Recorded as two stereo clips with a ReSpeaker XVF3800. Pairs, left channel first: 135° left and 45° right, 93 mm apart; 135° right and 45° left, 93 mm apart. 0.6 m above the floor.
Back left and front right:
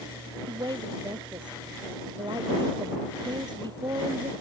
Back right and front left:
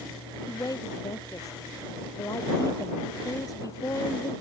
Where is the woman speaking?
85° right.